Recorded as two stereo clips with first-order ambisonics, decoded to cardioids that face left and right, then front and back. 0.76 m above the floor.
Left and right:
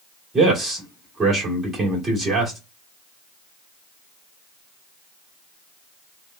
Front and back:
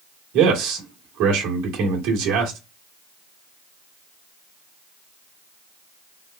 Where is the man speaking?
165° right, 1.6 m.